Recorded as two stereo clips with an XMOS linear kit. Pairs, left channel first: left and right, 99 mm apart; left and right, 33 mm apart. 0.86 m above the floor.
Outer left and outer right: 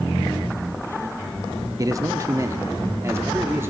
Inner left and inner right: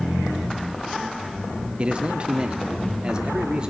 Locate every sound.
1.8 s a man speaking: 35° right (ahead or behind), 1.2 m; by 3.7 s 25° right (ahead or behind), 2.5 m